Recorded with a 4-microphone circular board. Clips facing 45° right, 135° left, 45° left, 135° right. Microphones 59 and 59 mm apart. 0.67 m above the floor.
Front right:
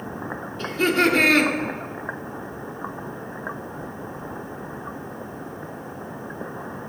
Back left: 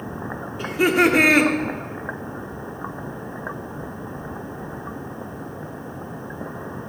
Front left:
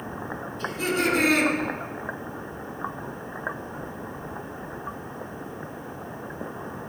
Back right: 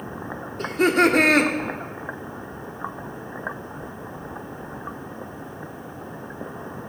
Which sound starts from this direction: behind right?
Laughter, at 0.6 s.